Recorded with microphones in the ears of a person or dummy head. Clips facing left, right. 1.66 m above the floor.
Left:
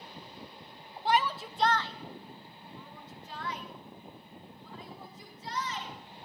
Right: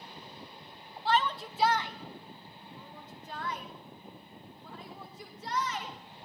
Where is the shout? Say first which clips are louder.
Left 1 dB; 15° left (ahead or behind), 0.7 m; by 6.0 s 55° right (ahead or behind), 3 m.